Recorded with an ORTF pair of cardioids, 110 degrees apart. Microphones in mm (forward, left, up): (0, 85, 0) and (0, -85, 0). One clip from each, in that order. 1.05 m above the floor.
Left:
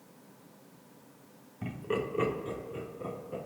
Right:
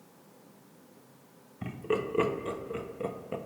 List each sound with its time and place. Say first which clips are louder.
1.6 s laughter: right 2 dB; 20° right, 1.3 m; by 3.4 s 70° right, 1.3 m